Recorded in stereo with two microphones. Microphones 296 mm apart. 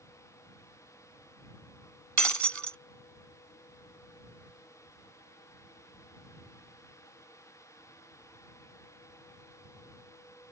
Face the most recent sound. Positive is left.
turn(degrees=-70)  # may be behind; listen again after turning